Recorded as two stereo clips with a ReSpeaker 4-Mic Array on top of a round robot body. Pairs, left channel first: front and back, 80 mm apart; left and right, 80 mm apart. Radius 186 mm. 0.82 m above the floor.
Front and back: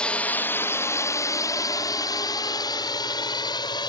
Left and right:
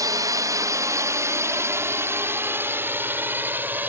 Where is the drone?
75° right; by 3.9 s 25° right.